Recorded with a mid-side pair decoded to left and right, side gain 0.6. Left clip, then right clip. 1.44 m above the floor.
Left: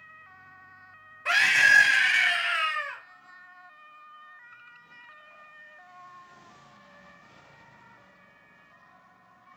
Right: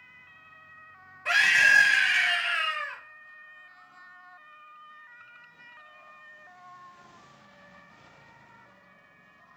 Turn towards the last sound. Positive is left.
turn(degrees=10)